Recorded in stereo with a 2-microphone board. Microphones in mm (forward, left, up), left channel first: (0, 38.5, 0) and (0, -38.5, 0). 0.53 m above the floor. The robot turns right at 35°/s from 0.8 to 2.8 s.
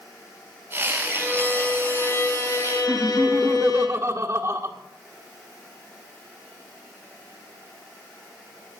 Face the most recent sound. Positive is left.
turn(degrees=-40)  # may be behind; listen again after turning